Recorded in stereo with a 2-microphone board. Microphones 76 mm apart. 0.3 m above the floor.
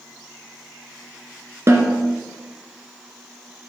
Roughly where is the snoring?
No snoring in this recording.